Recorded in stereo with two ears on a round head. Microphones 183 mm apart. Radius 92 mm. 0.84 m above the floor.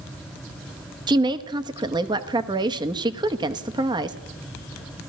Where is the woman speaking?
20° right (ahead or behind), 0.9 m.